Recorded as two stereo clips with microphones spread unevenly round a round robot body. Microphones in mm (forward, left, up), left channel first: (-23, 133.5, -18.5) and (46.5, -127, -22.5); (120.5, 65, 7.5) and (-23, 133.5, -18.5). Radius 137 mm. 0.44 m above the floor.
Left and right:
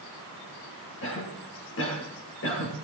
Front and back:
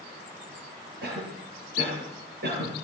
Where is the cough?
150° left, 9 m.